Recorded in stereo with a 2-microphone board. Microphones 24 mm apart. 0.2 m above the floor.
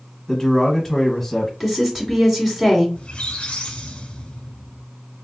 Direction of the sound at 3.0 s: 50° left (ahead or behind).